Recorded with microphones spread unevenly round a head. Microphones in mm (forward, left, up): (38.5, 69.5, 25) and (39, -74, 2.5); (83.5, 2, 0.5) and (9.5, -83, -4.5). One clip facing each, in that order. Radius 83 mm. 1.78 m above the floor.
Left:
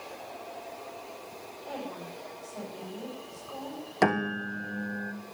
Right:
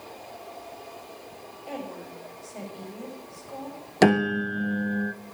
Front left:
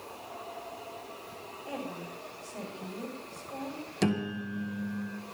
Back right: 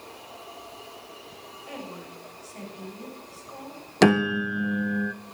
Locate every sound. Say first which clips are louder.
1.7 s a woman speaking: right 2 dB, front left 1 dB; 15° right, 8 m
4.0 s a piano: right 7 dB, back right 11 dB; 160° right, 0.6 m